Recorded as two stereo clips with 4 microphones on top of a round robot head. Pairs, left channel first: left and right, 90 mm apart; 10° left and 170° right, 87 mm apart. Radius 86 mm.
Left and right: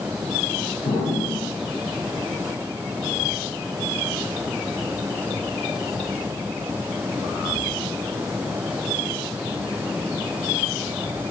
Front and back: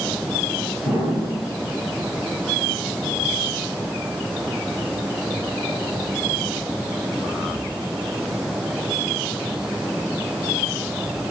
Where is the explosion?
125° left, 7.5 m.